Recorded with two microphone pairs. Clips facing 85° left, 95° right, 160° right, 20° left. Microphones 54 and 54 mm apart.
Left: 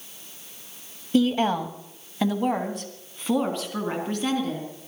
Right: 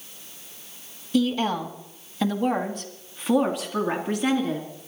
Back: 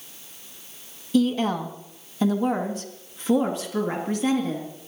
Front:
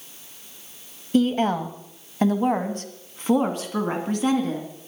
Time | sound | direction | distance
1.1 | a woman speaking | 40° left | 1.7 m